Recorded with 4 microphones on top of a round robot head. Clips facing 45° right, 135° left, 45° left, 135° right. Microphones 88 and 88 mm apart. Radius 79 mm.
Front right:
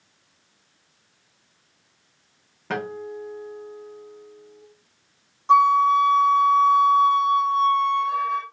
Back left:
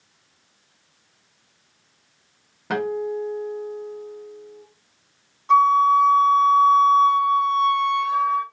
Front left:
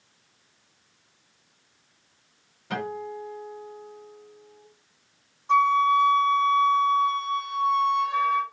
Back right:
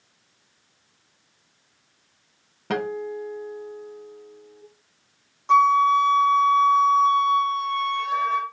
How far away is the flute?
About 1.3 m.